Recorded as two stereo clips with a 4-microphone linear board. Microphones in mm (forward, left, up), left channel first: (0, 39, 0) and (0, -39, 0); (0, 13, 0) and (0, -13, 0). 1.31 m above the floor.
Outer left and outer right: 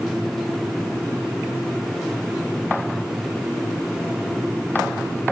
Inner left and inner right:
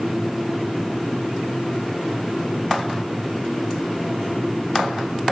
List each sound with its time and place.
Only background noise.